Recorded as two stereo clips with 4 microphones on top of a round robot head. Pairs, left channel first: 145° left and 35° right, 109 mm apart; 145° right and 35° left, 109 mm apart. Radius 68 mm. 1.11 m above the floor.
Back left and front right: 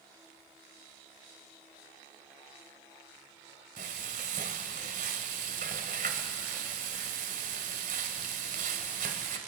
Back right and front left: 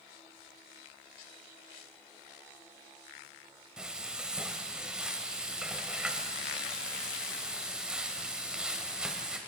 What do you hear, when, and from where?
3.8 s frying: 45° right, 1.5 m